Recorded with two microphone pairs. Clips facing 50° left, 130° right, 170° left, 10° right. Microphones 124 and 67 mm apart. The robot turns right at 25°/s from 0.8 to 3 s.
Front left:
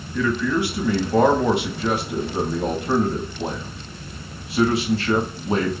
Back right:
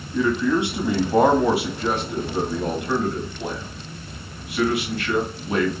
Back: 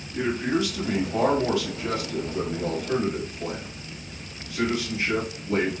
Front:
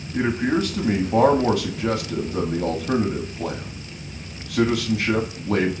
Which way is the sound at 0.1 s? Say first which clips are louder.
Back right 1 dB, front 3 dB; 60° right.